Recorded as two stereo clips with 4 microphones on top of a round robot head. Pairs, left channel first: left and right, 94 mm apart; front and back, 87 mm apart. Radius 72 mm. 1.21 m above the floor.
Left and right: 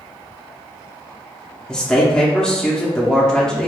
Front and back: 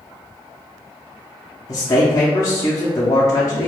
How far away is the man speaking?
About 0.6 m.